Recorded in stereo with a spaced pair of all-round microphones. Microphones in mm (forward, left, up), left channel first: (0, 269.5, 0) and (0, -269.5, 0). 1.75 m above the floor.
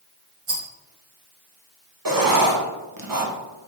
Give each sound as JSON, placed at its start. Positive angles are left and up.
{"t": 0.5, "sound": "a rattle", "side_deg": -70, "distance_m": 1.9}
{"t": 2.0, "sound": "writing", "side_deg": -40, "distance_m": 1.0}